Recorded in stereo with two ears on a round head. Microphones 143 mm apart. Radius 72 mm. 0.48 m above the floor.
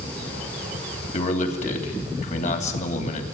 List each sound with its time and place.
1.1 s a man speaking: 50° left (ahead or behind), 3 m